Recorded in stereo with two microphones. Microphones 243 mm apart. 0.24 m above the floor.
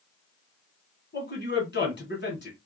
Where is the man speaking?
45° left (ahead or behind), 1.8 m.